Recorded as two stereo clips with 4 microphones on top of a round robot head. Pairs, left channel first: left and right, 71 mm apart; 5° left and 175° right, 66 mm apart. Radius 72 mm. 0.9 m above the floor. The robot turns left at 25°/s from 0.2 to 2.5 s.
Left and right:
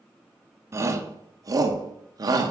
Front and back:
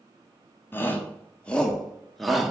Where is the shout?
45° right, 1.1 m; by 2.5 s 90° right, 1.1 m.